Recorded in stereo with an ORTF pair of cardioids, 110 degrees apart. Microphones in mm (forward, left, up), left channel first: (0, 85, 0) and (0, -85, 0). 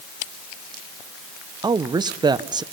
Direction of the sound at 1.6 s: 25° right.